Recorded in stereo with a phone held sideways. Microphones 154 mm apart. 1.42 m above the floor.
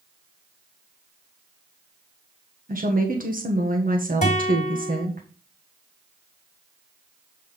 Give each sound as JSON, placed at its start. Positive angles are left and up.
{"t": 2.7, "sound": "a woman speaking", "side_deg": -65, "distance_m": 1.4}
{"t": 4.2, "sound": "a guitar", "side_deg": 50, "distance_m": 1.8}